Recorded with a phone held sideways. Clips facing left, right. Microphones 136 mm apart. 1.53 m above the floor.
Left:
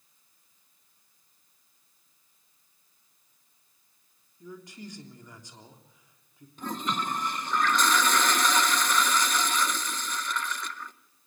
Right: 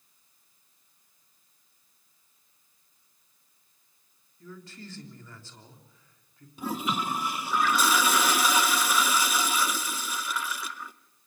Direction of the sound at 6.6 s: 5° right (ahead or behind).